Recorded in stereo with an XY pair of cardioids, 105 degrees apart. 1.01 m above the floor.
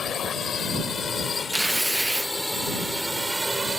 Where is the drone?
55° left; by 3.8 s 20° right.